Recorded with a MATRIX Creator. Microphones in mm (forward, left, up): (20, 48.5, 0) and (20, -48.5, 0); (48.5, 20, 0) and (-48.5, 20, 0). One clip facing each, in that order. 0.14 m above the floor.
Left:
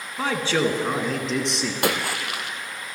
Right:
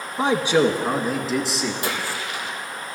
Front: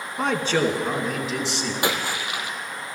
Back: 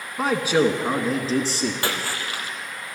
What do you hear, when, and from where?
0.2 s a man speaking: 95° right, 1.2 m; by 1.7 s straight behind, 1.6 m
1.8 s a splash: 70° left, 1.2 m